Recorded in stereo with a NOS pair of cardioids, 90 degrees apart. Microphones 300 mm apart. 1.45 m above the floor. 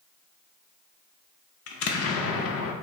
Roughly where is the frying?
I don't hear frying.